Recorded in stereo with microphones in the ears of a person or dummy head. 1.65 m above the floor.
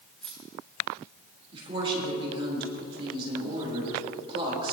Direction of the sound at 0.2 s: Centre (ahead or behind).